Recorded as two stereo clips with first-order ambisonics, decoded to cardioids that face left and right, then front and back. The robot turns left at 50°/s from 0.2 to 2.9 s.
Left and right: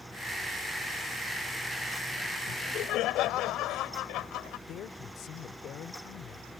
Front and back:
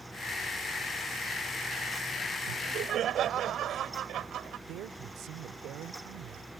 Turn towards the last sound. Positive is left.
turn(degrees=140)